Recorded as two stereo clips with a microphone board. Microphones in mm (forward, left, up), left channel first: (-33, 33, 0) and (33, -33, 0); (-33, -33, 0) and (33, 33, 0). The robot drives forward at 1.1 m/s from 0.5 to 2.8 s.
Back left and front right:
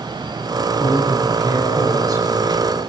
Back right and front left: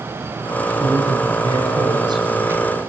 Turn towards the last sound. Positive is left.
turn(degrees=5)